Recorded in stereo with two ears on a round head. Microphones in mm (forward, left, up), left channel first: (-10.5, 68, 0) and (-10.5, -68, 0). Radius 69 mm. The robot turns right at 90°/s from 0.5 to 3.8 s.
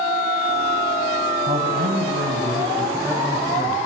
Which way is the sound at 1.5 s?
145° right.